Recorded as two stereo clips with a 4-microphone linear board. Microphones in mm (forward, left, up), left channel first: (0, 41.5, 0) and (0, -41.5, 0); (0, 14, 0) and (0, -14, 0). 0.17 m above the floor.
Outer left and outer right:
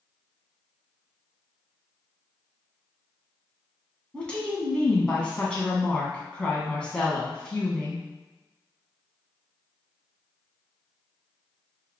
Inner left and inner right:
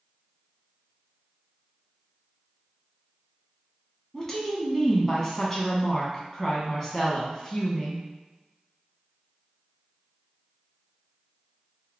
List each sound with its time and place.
4.1 s a woman speaking: 15° left (ahead or behind), 1.1 m